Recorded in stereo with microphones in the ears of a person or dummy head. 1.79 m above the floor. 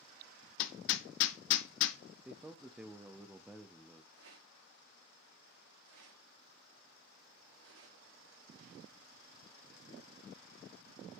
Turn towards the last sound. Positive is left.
turn(degrees=-75)  # may be behind; listen again after turning